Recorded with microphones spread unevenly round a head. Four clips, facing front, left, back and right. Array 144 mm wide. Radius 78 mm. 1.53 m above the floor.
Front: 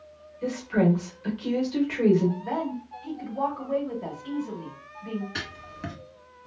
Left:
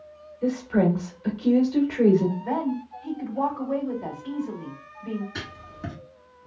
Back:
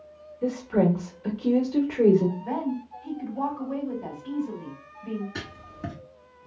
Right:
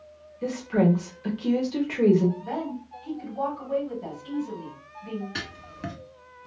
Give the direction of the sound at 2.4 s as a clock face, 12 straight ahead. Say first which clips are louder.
Left 5 dB, back 1 dB; 11 o'clock.